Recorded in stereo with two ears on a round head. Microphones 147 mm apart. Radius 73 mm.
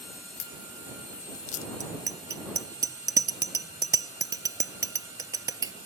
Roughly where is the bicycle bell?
Right.